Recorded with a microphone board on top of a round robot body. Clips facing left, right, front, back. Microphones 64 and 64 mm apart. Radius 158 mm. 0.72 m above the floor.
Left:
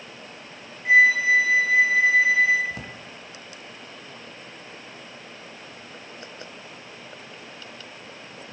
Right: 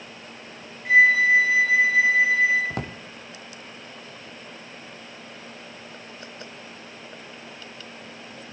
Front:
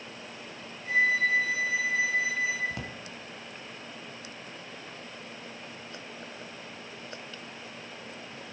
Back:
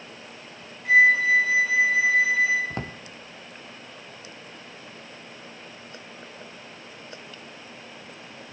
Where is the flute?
170° left, 4 m.